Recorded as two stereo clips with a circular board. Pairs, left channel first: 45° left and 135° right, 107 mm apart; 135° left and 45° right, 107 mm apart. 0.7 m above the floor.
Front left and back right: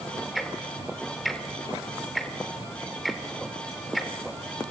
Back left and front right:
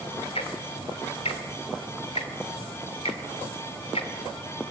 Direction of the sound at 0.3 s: 135° left.